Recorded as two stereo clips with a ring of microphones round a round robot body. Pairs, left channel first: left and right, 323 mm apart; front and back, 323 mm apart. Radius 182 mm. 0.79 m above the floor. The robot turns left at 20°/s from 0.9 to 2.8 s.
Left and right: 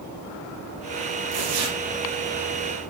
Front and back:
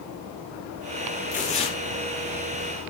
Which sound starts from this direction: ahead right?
Tearing paper, at 1.3 s.